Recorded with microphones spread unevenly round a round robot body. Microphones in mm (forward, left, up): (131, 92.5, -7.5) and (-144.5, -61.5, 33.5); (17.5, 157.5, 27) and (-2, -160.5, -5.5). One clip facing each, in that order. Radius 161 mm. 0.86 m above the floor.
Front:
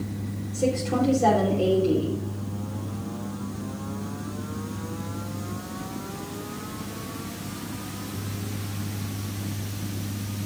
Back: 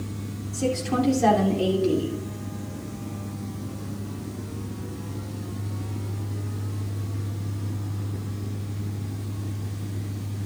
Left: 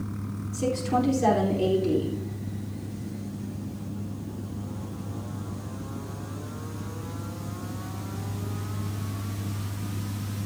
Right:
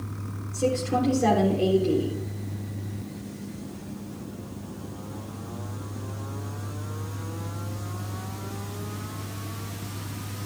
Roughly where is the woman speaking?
Behind.